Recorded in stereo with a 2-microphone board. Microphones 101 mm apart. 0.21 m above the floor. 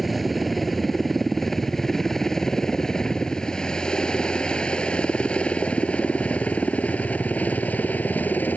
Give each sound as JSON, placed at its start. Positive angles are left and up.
{"t": 0.0, "sound": "a helicopter", "side_deg": 0}